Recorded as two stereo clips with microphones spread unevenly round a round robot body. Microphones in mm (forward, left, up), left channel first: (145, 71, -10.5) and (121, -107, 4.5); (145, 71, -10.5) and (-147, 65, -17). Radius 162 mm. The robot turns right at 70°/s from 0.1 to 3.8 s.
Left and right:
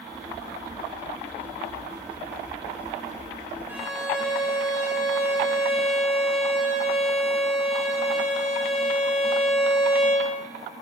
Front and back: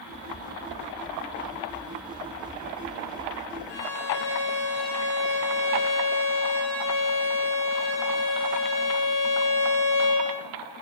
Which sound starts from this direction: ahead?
A violin, at 3.7 s.